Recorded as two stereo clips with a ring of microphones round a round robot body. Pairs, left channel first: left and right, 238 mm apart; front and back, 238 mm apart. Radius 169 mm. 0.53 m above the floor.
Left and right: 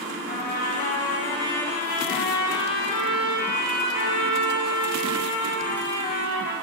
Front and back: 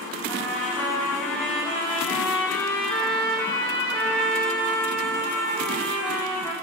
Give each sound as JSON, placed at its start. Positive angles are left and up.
{"t": 0.3, "sound": "a trumpet", "azimuth_deg": 80, "distance_m": 1.4}